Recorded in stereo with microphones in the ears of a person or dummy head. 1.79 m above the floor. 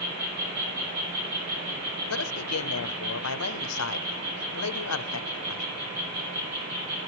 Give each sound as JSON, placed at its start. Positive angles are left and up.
{"t": 0.0, "sound": "an insect", "side_deg": -80, "distance_m": 6.5}
{"t": 2.1, "sound": "a man speaking", "side_deg": 90, "distance_m": 0.9}